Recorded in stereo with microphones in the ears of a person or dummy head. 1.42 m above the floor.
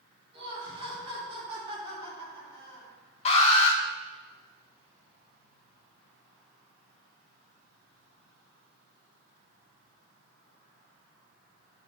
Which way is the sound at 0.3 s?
35° right (ahead or behind).